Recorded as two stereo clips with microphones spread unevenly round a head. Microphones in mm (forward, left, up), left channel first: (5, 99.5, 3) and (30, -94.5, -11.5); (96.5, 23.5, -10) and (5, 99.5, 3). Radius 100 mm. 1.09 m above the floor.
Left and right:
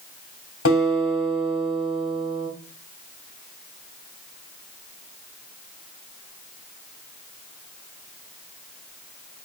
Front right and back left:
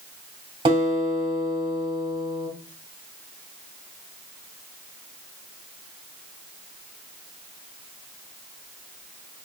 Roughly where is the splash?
I don't hear a splash.